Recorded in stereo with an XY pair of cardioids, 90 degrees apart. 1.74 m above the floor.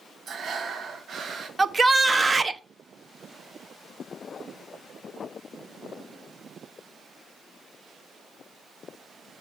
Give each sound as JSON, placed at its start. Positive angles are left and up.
{"t": 0.3, "sound": "breathing", "azimuth_deg": -55, "distance_m": 1.7}
{"t": 1.6, "sound": "a shout", "azimuth_deg": -30, "distance_m": 1.2}